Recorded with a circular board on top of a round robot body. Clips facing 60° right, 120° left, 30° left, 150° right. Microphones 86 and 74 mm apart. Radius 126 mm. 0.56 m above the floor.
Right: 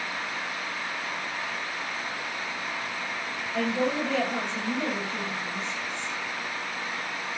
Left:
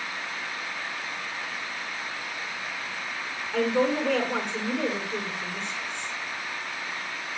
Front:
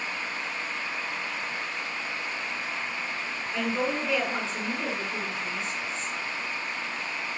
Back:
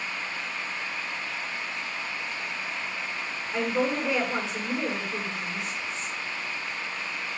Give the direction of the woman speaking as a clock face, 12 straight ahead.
8 o'clock.